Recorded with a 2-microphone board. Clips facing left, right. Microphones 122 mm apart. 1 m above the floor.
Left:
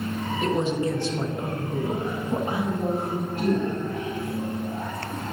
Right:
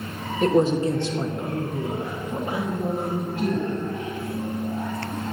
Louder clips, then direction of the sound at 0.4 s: Right 6 dB; 45° right (ahead or behind).